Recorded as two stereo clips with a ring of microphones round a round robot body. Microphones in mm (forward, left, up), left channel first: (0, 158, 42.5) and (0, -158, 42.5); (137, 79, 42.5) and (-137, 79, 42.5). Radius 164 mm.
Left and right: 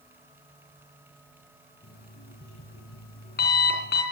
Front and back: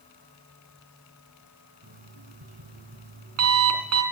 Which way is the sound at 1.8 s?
150° left.